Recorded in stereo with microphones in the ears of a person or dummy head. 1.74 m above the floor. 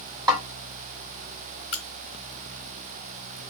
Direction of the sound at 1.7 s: 30° left (ahead or behind).